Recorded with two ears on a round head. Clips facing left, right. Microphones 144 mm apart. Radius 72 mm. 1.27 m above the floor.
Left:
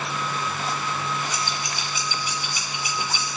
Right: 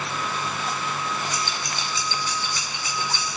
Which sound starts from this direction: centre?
Scissors, at 1.3 s.